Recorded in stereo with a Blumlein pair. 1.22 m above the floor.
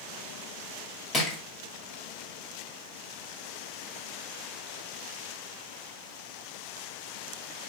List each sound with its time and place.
1.1 s crushing: 25° left, 1.7 m